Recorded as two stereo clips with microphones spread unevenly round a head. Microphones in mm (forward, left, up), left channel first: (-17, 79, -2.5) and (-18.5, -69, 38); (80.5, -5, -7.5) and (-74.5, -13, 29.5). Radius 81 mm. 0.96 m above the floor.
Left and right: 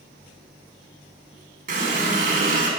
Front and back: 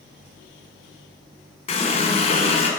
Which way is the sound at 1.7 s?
50° right.